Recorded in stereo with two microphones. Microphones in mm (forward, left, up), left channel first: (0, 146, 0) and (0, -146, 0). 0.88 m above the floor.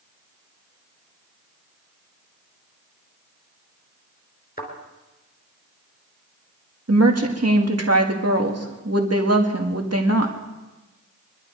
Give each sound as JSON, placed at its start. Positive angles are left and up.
{"t": 4.6, "sound": "a thud", "side_deg": 30, "distance_m": 4.0}
{"t": 6.9, "sound": "a woman speaking", "side_deg": -55, "distance_m": 1.7}